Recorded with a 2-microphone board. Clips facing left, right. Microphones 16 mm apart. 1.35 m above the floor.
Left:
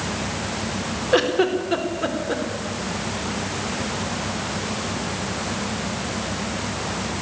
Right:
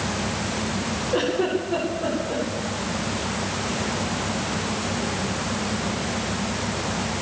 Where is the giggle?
55° left (ahead or behind), 4.5 m.